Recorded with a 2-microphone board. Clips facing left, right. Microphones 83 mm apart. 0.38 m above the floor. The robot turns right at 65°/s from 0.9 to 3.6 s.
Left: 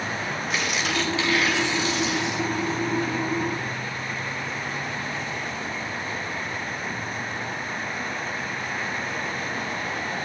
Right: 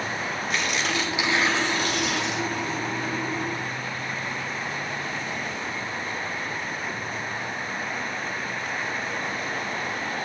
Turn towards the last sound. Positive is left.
turn(degrees=-5)